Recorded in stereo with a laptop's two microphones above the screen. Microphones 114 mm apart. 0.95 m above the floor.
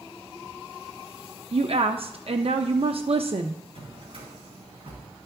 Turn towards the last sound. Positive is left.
turn(degrees=-55)  # may be behind; listen again after turning